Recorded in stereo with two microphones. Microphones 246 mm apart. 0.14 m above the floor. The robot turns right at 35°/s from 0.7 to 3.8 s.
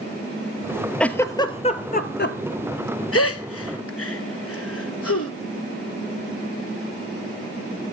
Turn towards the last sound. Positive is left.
turn(degrees=65)  # may be behind; listen again after turning